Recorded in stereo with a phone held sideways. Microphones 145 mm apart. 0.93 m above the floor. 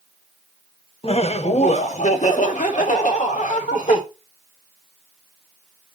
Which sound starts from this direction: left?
Laughter, at 1.0 s.